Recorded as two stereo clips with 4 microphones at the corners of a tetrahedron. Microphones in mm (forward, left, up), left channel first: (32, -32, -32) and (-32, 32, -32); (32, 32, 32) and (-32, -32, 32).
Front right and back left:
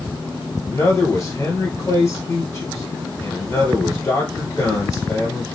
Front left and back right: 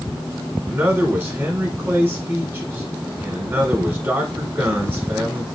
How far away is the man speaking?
About 1.4 m.